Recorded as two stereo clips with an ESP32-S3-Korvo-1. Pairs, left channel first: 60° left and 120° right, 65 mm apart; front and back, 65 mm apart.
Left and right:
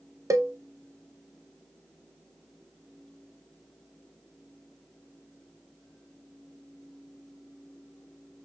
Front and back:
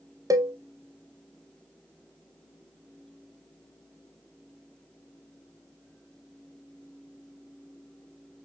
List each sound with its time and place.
0.3 s a cowbell: 155° right, 0.9 m